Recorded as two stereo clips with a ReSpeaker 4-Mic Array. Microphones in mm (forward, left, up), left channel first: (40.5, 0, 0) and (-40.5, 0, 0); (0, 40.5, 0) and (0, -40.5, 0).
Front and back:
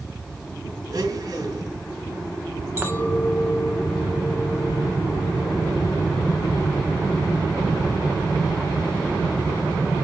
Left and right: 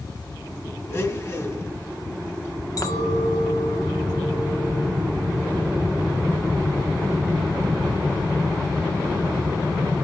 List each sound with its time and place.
0.9 s a blender: 145° left, 1.8 m
2.8 s a clink: 120° left, 1.4 m